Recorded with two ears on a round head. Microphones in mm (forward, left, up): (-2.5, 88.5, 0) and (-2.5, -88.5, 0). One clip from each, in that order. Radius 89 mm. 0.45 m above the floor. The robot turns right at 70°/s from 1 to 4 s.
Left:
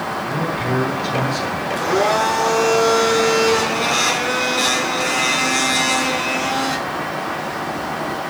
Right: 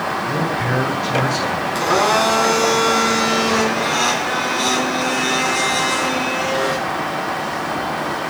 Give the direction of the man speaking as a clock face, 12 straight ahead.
5 o'clock.